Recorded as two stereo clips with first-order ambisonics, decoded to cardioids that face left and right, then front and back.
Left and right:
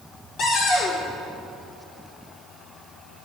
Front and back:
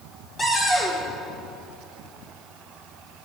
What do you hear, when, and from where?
0.4 s a cupboard door: 70° left, 1.6 m